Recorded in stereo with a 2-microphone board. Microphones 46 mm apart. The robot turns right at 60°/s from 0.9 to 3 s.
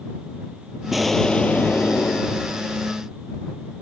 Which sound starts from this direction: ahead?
An explosion, at 0.9 s.